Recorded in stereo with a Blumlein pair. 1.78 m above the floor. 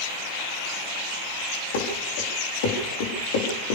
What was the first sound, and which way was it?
Running footsteps, 55° left.